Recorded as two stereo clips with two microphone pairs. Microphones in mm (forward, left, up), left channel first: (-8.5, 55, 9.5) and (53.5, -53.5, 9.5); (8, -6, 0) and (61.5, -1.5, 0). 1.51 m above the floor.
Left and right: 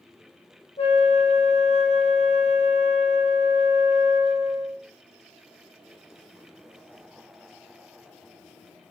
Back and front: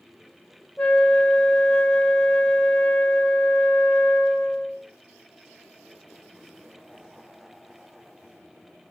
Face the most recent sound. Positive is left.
turn(degrees=120)